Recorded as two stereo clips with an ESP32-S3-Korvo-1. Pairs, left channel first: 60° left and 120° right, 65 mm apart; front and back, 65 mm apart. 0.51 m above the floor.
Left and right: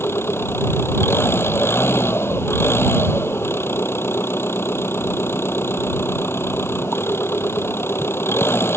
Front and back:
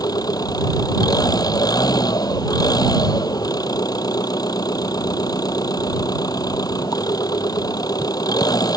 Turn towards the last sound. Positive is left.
turn(degrees=10)